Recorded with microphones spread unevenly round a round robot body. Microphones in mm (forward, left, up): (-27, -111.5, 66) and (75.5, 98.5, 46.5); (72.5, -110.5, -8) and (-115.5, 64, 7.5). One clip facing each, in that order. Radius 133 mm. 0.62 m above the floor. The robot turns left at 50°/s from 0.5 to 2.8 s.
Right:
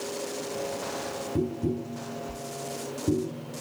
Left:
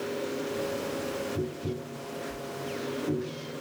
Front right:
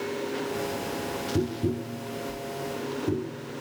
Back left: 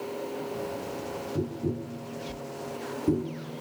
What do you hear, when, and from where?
1.4 s tapping: 85° right, 0.9 m; by 3.6 s 160° right, 0.9 m